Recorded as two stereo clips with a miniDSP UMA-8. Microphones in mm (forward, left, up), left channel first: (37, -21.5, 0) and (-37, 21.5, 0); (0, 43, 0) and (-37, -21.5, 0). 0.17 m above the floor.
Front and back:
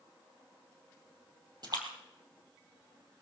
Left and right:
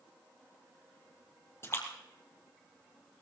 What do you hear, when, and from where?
1.6 s a splash: 115° left, 3.5 m